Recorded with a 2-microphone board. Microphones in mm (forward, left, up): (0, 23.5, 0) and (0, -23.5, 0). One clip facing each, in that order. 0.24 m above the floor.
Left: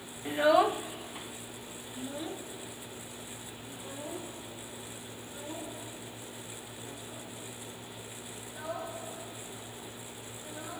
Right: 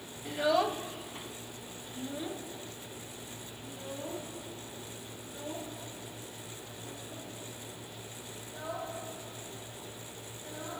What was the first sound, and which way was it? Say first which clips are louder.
A child speaking: left 4 dB; 20° left (ahead or behind).